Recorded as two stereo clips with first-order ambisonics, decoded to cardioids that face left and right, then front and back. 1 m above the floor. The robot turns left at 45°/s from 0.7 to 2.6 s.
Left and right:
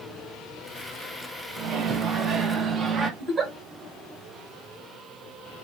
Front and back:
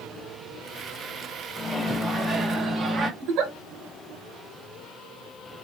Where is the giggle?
160° right, 1.1 m.